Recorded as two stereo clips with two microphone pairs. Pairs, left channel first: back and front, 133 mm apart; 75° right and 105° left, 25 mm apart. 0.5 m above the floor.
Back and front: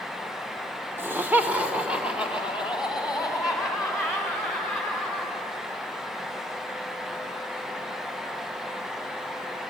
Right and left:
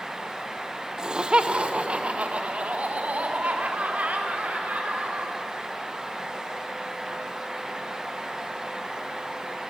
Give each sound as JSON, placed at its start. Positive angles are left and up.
{"t": 1.0, "sound": "laughter", "azimuth_deg": 65, "distance_m": 1.0}